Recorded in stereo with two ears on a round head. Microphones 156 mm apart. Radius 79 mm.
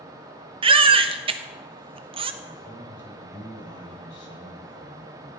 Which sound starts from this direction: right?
A baby crying, at 0.6 s.